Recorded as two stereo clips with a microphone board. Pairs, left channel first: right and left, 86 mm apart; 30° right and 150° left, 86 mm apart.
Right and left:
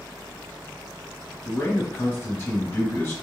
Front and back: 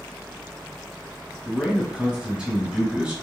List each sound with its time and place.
1.4 s a man speaking: 135° right, 1.5 m